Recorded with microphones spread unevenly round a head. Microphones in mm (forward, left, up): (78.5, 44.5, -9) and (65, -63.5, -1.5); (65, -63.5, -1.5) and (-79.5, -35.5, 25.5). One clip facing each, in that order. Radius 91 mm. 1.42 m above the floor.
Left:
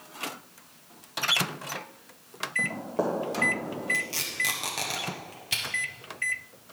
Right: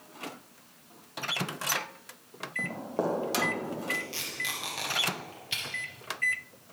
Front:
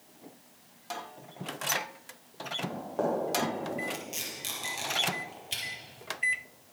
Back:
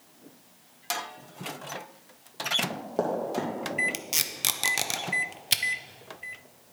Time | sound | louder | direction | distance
2.6 | running footsteps | left 2 dB, back 2 dB | straight behind | 2 m
3.9 | tape being pulled | left 3 dB, back 1 dB | 150° left | 0.6 m